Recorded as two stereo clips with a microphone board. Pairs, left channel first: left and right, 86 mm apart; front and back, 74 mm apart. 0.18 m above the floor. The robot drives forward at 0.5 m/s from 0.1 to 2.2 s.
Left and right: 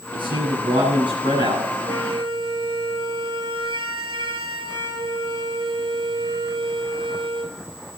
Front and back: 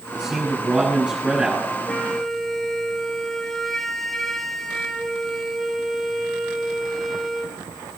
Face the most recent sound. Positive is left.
turn(degrees=-85)